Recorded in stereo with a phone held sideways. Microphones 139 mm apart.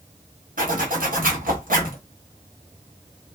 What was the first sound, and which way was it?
A zipper, 85° right.